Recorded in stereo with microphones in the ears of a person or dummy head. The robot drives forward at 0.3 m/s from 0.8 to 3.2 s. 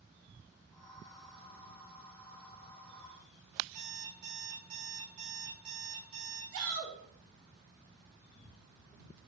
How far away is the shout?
About 0.5 m.